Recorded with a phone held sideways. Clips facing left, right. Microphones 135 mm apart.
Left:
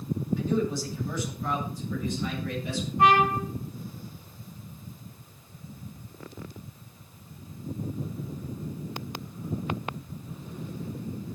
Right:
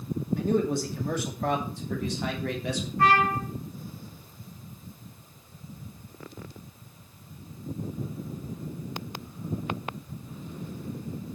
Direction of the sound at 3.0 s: 20° left (ahead or behind).